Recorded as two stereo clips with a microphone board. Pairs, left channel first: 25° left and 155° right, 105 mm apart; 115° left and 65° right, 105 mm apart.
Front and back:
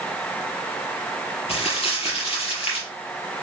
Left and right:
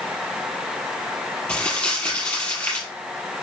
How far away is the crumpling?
About 4.5 m.